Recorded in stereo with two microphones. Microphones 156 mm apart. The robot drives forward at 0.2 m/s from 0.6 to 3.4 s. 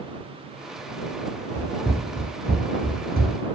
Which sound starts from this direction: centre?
Running footsteps, at 1.6 s.